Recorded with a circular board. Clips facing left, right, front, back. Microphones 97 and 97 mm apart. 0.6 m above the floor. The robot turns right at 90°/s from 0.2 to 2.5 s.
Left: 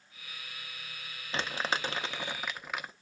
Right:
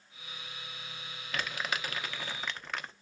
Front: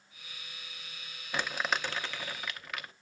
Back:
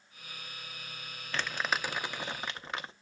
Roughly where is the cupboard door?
I don't hear a cupboard door.